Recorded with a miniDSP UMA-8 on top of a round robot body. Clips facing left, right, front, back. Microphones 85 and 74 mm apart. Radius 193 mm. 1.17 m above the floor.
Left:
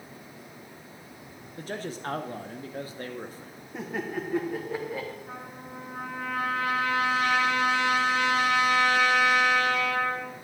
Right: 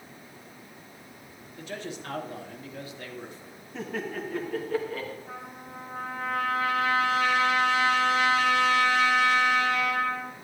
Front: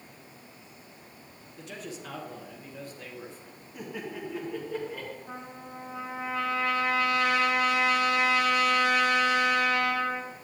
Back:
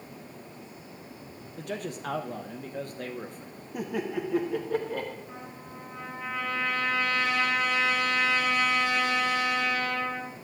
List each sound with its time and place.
1.6 s a man speaking: 140° left, 0.9 m
3.7 s laughter: 165° left, 1.6 m
5.3 s a trumpet: 15° left, 1.5 m